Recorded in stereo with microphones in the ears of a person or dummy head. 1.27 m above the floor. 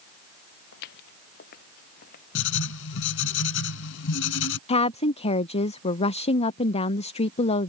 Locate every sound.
0.7 s footsteps: 55° left (ahead or behind); by 2.2 s 45° left (ahead or behind)
2.4 s writing: 70° left (ahead or behind)
4.7 s a woman speaking: 45° left (ahead or behind)